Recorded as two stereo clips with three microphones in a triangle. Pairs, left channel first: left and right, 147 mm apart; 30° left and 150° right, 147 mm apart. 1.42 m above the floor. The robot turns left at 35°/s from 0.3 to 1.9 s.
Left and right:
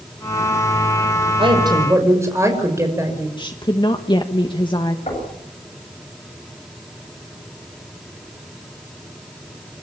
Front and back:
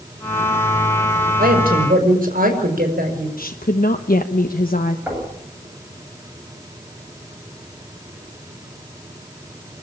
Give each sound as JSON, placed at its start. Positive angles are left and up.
{"t": 1.4, "sound": "a woman speaking", "azimuth_deg": -140, "distance_m": 5.5}
{"t": 3.4, "sound": "a woman speaking", "azimuth_deg": 35, "distance_m": 1.2}
{"t": 5.1, "sound": "knocking", "azimuth_deg": 135, "distance_m": 9.0}